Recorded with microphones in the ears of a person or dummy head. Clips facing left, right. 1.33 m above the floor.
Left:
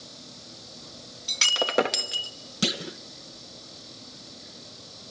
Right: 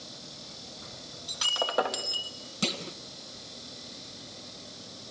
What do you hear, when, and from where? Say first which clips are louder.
1.3 s breaking glass: left 3 dB; 35° left (ahead or behind), 1.0 m
2.6 s a clunk: left 4 dB; 15° left (ahead or behind), 0.6 m